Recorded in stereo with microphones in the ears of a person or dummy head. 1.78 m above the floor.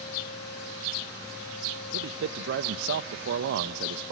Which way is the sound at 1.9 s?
55° right (ahead or behind).